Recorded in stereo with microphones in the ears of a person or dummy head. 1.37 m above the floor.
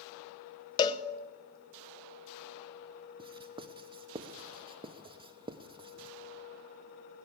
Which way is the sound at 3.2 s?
25° right (ahead or behind).